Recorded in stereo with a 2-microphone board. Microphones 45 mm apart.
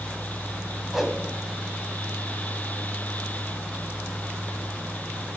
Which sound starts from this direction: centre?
A whoosh, at 0.9 s.